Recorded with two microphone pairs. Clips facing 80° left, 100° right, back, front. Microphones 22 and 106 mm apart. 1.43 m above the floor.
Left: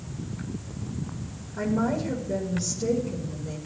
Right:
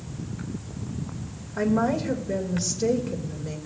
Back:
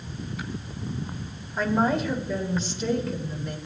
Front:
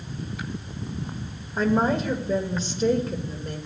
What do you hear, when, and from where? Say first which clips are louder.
1.6 s a woman speaking: right 3 dB, front 1 dB; 45° right, 2 m